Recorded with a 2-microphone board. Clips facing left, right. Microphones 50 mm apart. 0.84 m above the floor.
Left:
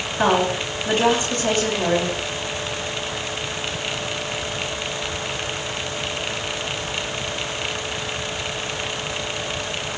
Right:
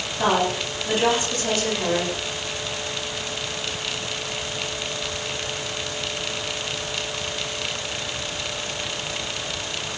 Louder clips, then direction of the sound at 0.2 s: Left 2 dB; 50° left (ahead or behind).